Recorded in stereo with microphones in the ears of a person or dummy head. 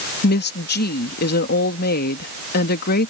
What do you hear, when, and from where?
0.2 s a woman speaking: 55° left (ahead or behind)